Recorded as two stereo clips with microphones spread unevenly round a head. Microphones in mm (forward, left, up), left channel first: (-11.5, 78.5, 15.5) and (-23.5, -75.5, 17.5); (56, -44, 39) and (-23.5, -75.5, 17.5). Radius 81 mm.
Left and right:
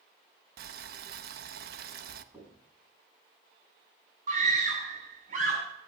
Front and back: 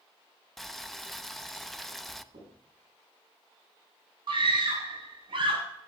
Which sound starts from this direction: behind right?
A scream, at 4.3 s.